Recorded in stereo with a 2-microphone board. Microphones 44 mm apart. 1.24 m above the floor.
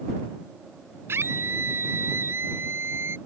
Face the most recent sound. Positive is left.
turn(degrees=-60)  # may be behind; listen again after turning